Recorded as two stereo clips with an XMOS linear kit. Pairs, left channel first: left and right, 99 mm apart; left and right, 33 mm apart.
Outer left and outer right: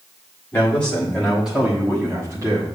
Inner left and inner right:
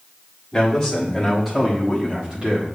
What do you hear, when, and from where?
0.5 s a man speaking: 20° left (ahead or behind), 1.5 m; by 2.8 s 45° right (ahead or behind), 1.6 m